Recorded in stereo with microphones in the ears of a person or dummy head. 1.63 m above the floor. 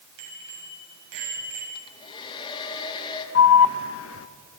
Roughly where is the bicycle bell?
Right.